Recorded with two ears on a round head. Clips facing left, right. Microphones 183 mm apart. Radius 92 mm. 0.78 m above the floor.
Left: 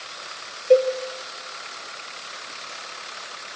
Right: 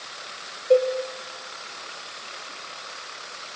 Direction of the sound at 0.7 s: 25° left (ahead or behind).